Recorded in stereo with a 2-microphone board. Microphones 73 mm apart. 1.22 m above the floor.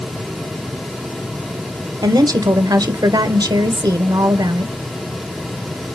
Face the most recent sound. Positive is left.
turn(degrees=-60)  # may be behind; listen again after turning